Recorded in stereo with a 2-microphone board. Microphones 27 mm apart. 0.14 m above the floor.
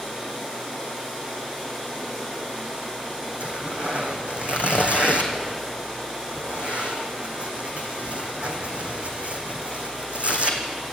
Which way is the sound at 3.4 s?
55° right (ahead or behind).